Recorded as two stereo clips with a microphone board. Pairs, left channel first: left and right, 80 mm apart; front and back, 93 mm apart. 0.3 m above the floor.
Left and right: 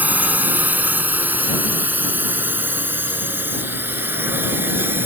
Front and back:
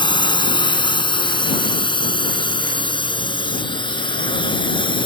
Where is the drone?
20° right; by 5.1 s 25° right.